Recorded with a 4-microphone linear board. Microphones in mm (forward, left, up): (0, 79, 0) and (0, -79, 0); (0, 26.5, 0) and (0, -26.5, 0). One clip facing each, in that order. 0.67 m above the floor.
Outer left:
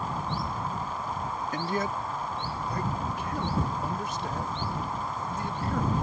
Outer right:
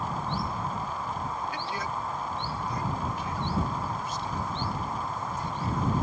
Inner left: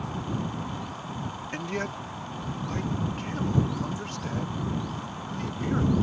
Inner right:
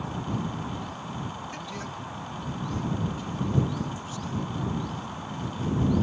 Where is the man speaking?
45° left (ahead or behind); by 5.9 s 70° left (ahead or behind).